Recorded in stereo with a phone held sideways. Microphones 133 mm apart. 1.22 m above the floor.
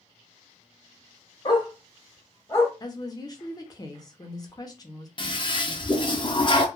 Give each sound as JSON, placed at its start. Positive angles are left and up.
{"t": 1.4, "sound": "a dog barking", "side_deg": 35, "distance_m": 1.0}
{"t": 2.8, "sound": "a woman speaking", "side_deg": 30, "distance_m": 0.7}
{"t": 5.2, "sound": "a toilet flushing", "side_deg": 40, "distance_m": 0.5}